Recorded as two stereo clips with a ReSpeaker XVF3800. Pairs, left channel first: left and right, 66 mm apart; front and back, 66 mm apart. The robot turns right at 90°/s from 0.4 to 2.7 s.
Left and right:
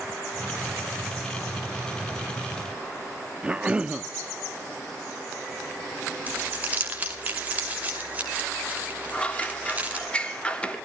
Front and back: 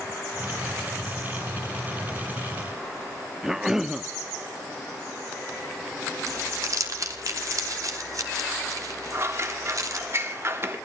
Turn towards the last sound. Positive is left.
turn(degrees=155)